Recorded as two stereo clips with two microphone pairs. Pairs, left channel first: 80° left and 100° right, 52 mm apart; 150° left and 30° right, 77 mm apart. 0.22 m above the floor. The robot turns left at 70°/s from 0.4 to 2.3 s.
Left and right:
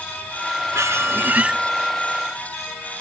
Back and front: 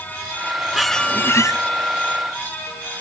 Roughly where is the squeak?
Behind right.